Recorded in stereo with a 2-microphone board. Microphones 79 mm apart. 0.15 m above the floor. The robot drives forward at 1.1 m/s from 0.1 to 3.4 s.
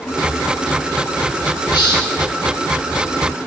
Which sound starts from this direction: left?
A hiss, at 1.7 s.